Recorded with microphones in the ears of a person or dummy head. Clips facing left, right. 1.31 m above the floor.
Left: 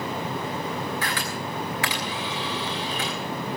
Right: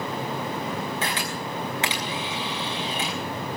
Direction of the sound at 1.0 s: 25° right (ahead or behind).